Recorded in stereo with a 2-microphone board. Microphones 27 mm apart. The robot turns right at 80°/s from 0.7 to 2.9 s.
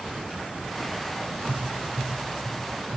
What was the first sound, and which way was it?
Tapping, 20° right (ahead or behind).